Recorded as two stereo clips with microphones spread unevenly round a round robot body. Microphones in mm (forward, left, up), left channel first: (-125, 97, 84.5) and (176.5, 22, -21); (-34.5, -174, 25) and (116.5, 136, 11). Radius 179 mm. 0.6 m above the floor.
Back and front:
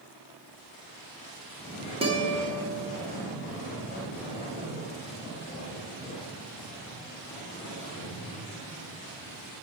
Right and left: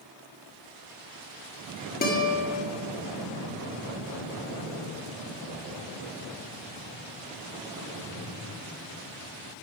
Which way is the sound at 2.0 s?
60° right.